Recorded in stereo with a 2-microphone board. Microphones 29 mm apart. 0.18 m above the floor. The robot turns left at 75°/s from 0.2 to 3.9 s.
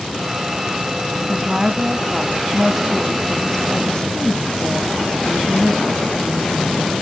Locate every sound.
1.3 s a woman speaking: 15° right (ahead or behind), 1.1 m; by 6.9 s 20° left (ahead or behind), 1.1 m